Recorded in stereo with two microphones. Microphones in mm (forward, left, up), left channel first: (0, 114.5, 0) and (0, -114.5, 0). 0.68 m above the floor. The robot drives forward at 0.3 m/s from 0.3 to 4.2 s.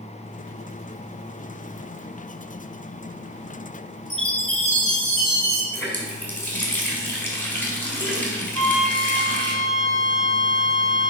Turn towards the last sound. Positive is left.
turn(degrees=0)  # may be behind; listen again after turning